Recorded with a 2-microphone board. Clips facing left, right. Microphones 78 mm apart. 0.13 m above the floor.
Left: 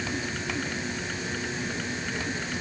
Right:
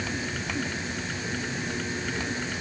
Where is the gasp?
I don't hear a gasp.